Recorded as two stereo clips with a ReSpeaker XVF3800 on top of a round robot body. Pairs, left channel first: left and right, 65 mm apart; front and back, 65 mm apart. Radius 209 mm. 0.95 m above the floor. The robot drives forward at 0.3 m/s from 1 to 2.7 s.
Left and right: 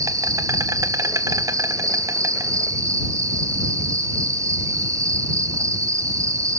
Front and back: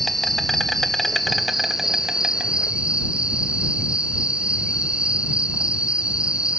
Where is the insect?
85° right, 1.6 m; by 6.6 s 110° right, 1.7 m.